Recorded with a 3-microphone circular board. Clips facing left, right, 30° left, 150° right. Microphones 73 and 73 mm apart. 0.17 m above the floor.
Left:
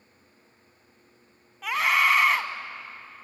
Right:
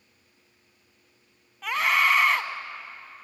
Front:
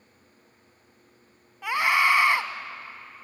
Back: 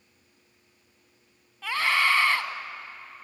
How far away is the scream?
About 1.0 m.